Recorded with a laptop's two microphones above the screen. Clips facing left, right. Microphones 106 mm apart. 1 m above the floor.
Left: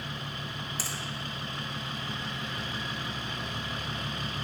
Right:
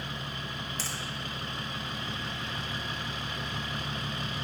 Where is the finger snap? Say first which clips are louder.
Even; 10° left (ahead or behind), 1.4 m.